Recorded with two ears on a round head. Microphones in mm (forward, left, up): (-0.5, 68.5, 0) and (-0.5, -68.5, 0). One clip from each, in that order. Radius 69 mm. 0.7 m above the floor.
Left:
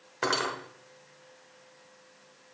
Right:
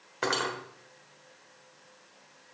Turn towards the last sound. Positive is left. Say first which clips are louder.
# left 1 dB
turn(degrees=0)  # may be behind; listen again after turning